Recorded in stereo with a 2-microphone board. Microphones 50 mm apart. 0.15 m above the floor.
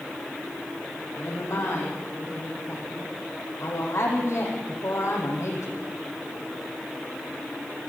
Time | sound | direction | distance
1.2 | a woman speaking | 80° left | 10 m